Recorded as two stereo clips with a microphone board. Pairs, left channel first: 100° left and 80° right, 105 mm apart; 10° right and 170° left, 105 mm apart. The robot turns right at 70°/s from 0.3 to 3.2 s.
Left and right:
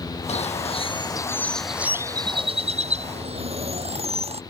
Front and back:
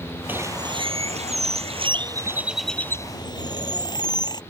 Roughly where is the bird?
Left.